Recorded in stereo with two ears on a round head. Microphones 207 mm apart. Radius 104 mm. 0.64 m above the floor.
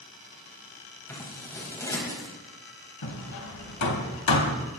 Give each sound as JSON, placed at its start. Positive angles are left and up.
{"t": 1.1, "sound": "scissors", "side_deg": 15, "distance_m": 4.5}
{"t": 3.0, "sound": "hammering", "side_deg": 80, "distance_m": 3.0}